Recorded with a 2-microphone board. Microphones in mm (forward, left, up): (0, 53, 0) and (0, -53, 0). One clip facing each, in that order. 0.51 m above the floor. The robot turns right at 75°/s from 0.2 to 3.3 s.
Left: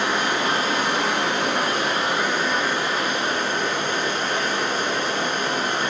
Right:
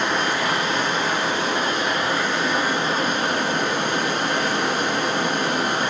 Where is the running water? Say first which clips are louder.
Even; 10° left, 0.8 m; by 5.9 s 120° right, 0.8 m.